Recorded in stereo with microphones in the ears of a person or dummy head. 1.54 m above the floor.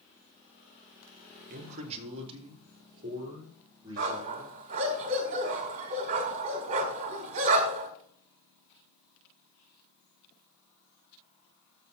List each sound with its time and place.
1.5 s a man speaking: 45° right (ahead or behind), 1.2 m; by 5.0 s 25° right (ahead or behind), 6.5 m
4.0 s a dog barking: 40° right (ahead or behind), 1.7 m